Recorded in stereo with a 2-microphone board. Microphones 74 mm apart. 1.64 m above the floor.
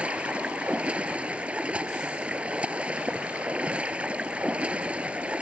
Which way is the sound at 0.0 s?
15° right (ahead or behind).